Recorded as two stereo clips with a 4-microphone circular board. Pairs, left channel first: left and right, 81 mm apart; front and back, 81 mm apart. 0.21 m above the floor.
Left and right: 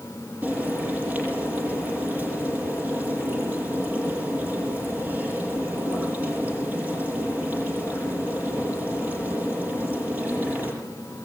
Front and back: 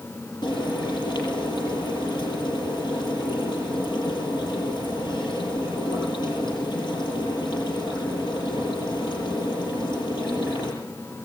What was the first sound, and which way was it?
Frying, 20° right.